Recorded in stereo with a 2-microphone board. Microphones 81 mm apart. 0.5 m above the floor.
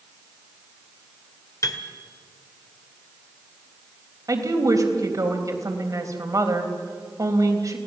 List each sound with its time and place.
1.6 s a piano: 40° left (ahead or behind), 1.9 m
4.3 s a woman speaking: 45° right (ahead or behind), 3.5 m